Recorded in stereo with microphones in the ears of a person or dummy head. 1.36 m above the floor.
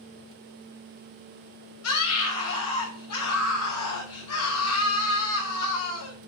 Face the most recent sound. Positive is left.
turn(degrees=85)